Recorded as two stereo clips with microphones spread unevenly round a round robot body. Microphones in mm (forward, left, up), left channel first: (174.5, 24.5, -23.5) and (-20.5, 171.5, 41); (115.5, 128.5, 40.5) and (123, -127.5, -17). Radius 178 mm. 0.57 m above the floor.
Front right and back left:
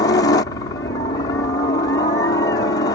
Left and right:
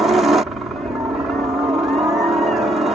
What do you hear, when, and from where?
0.0 s a helicopter: 25° right